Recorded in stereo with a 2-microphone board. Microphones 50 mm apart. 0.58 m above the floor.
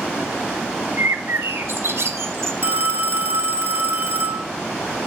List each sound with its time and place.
1.0 s a bird: 60° right (ahead or behind), 0.9 m
2.6 s a phone ringing: 50° right (ahead or behind), 1.1 m